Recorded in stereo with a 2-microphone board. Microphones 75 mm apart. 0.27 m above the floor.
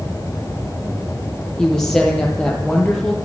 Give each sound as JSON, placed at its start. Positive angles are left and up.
{"t": 1.6, "sound": "a woman speaking", "side_deg": 5, "distance_m": 6.5}